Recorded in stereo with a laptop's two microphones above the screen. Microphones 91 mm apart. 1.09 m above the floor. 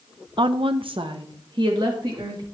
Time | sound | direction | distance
0.4 | a woman speaking | 65° right (ahead or behind) | 0.6 m